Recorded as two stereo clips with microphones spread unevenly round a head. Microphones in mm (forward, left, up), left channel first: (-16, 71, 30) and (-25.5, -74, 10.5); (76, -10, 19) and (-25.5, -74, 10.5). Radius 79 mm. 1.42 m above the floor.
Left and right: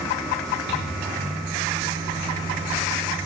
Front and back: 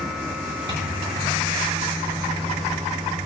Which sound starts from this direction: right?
A microwave, at 0.7 s.